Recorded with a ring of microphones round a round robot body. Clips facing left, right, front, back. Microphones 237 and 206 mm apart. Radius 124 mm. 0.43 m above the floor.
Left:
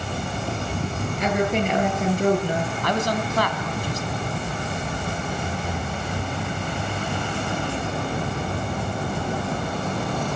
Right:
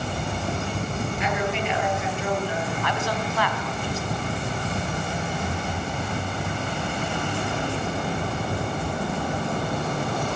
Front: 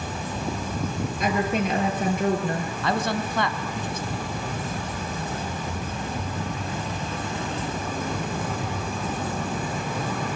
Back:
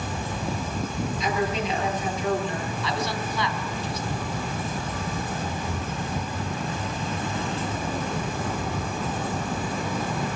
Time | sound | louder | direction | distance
1.2 | a woman speaking | left 7 dB, front 3 dB | 35° left | 8 m
2.8 | a man speaking | left 3 dB, front 6 dB | 40° left | 3 m